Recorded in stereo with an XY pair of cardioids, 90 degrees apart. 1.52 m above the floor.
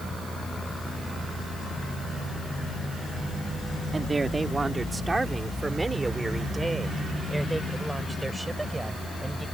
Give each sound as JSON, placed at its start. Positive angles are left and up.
{"t": 3.9, "sound": "a woman speaking", "azimuth_deg": -30}